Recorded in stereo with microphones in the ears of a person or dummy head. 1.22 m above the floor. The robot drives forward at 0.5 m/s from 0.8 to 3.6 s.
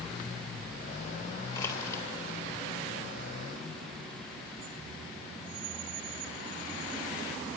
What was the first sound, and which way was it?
Crushing, 20° left (ahead or behind).